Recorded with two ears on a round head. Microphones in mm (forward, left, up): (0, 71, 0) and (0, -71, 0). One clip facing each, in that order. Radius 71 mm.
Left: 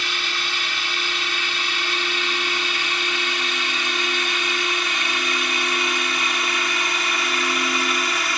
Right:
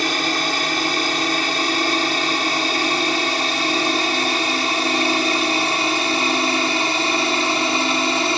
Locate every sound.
0.0 s a drone: 35° right (ahead or behind); by 8.4 s 25° right (ahead or behind)